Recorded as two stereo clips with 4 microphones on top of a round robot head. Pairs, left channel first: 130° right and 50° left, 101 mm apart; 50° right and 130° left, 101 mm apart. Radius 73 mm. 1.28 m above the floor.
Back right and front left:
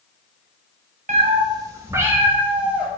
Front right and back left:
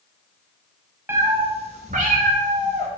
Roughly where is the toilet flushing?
No toilet flushing in this recording.